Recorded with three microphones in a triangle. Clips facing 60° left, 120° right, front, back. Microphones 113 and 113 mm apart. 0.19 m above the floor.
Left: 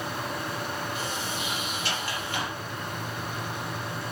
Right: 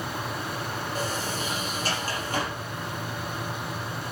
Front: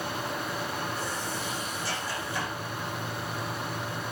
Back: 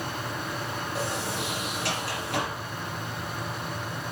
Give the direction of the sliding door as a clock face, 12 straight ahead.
6 o'clock.